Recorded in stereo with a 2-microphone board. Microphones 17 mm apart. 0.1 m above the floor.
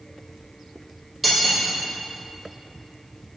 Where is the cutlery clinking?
5° right (ahead or behind), 1.8 m.